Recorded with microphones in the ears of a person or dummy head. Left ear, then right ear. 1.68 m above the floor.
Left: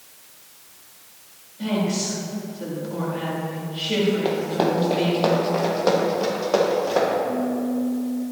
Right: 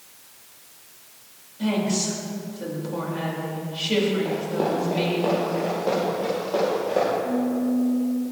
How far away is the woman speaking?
About 4.5 m.